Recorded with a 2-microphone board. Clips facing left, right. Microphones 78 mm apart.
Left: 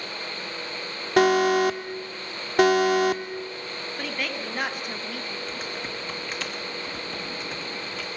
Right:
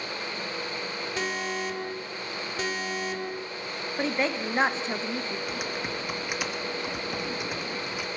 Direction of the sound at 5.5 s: 15° right (ahead or behind).